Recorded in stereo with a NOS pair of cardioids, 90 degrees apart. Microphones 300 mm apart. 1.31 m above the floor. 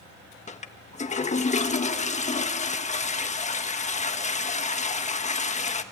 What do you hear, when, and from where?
0.5 s a toilet flushing: 20° left, 1.4 m